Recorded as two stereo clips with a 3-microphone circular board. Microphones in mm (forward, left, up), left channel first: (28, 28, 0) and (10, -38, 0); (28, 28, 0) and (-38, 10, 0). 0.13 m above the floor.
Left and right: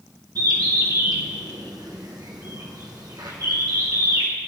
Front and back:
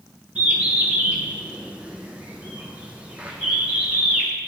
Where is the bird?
95° right, 2.5 m.